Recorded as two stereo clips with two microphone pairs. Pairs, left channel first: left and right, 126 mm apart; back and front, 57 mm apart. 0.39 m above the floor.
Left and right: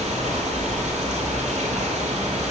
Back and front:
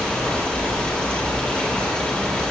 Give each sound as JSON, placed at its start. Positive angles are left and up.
{"t": 0.0, "sound": "running water", "azimuth_deg": -110, "distance_m": 8.0}